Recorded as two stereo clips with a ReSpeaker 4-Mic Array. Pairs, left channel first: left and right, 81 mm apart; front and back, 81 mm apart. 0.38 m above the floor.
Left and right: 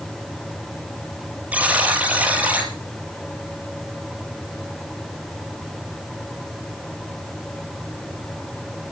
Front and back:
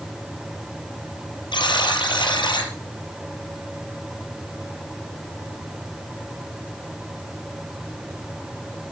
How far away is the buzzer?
About 4 m.